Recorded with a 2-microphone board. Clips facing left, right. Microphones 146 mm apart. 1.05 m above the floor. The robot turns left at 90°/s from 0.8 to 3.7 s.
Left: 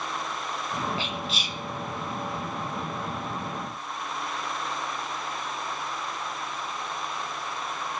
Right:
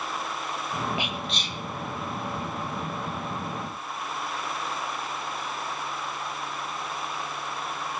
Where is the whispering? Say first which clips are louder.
Even; 15° right (ahead or behind), 0.8 m; by 1.6 s 20° left (ahead or behind), 0.8 m.